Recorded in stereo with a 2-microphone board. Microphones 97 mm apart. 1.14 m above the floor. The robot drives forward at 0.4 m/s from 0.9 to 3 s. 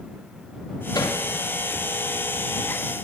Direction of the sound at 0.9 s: 40° left (ahead or behind).